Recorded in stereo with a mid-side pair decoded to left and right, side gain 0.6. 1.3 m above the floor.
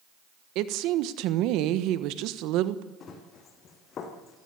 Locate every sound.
0.6 s a woman speaking: 70° right, 1.3 m
3.0 s running footsteps: 45° left, 4.5 m